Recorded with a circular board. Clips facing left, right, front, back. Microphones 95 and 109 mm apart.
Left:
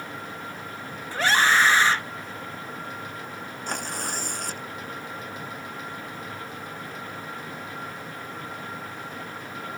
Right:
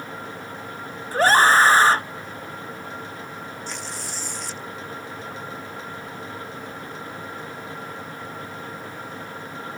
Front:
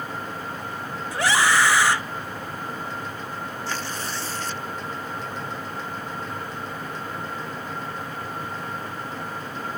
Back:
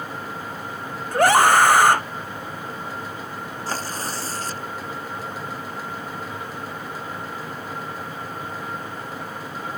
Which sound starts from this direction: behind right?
A scream, at 1.1 s.